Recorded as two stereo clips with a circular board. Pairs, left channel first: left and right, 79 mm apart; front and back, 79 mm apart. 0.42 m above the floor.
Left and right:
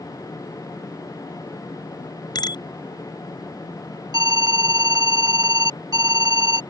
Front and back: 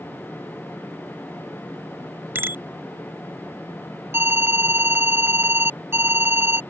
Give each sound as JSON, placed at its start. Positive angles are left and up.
{"t": 2.4, "sound": "a bicycle bell", "azimuth_deg": 120}
{"t": 4.1, "sound": "an alarm", "azimuth_deg": -120}